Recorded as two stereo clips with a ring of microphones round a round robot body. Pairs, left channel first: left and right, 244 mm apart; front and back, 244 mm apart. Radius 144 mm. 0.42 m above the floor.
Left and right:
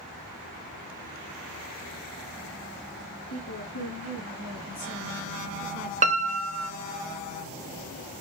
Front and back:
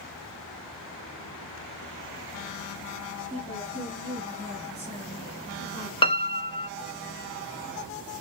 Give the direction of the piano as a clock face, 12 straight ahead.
2 o'clock.